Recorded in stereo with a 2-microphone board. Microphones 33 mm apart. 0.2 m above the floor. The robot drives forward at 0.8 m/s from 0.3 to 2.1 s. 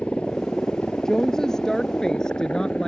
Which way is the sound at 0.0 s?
35° left (ahead or behind).